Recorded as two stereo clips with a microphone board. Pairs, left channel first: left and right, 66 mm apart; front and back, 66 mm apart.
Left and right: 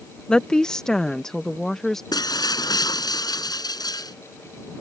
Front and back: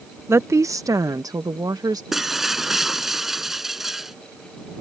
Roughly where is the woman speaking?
Behind.